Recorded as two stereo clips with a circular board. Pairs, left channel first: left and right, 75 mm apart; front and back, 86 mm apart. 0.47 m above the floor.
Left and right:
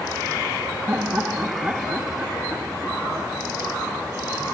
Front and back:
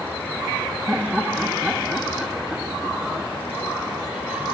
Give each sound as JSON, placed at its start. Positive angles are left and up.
{"t": 0.9, "sound": "laughter", "azimuth_deg": -105}